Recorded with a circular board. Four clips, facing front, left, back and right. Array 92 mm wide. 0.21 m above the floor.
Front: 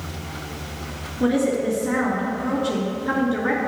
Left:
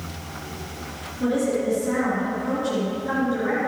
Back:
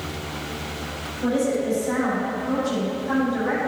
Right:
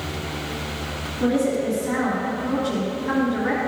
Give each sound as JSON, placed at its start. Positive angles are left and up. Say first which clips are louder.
{"t": 1.2, "sound": "a woman speaking", "louder": "right 1 dB, front 2 dB", "azimuth_deg": -10, "distance_m": 3.0}